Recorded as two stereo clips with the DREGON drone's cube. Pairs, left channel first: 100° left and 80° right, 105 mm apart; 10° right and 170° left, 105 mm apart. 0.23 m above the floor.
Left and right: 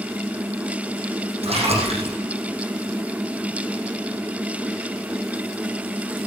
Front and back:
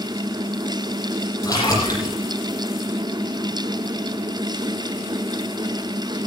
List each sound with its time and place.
1.4 s a splash: 65° right, 8 m